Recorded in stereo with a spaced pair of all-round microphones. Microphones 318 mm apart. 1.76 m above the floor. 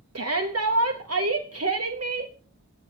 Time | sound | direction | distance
0.1 | a shout | 50° right (ahead or behind) | 1.0 m